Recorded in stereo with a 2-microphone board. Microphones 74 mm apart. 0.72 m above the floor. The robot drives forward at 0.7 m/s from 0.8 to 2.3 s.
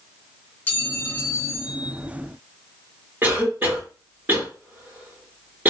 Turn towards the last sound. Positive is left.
turn(degrees=-25)  # may be behind; listen again after turning